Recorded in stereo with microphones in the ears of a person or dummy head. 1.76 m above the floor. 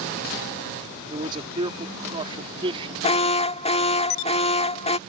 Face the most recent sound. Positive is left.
turn(degrees=35)  # may be behind; listen again after turning